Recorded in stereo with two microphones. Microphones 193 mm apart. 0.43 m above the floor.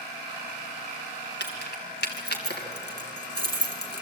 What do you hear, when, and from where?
1.4 s keys jangling: 65° left (ahead or behind), 3 m